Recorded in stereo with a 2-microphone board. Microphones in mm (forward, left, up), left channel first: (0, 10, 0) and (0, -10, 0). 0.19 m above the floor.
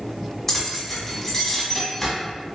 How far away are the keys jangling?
About 1.1 m.